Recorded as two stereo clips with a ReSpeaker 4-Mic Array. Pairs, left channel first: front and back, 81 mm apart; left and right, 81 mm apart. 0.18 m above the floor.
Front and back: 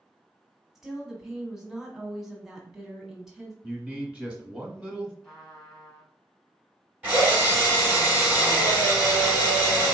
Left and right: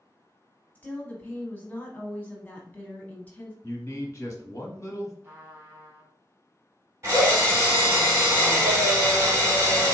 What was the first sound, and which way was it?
A woman speaking, 105° left.